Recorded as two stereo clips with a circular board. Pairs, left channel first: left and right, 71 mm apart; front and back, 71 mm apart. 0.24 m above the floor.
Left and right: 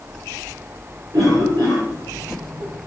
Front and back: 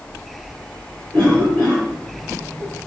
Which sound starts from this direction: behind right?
A cough, at 1.1 s.